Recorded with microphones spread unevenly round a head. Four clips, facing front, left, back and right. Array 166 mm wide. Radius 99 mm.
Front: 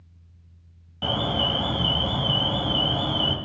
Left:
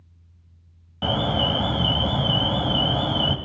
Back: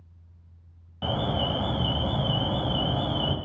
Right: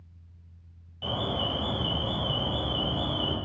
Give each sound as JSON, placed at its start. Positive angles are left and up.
{"t": 1.0, "sound": "an alarm", "azimuth_deg": 70, "distance_m": 1.7}